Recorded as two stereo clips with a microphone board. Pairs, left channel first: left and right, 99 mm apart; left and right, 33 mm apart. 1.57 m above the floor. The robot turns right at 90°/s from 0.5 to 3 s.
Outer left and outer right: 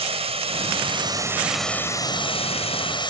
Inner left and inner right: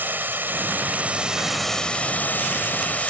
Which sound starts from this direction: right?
Running water, at 0.0 s.